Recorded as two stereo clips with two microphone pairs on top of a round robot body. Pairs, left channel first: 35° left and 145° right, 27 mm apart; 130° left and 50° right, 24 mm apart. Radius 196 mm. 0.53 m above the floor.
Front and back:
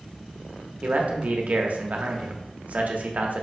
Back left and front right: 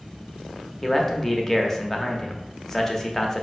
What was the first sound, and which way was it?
A man speaking, 150° right.